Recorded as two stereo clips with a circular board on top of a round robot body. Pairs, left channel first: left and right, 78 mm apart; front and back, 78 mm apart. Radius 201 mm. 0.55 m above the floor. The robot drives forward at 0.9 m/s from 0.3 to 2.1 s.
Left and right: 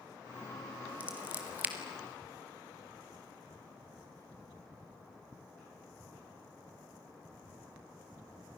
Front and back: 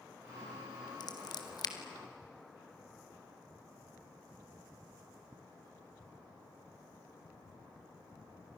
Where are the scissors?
20° right, 3 m; by 1.8 s 25° right, 2.5 m.